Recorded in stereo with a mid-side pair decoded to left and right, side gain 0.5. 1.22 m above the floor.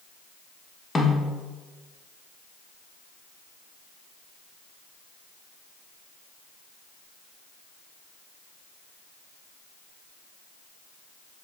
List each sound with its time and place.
0.9 s a snare drum: 25° left, 1.1 m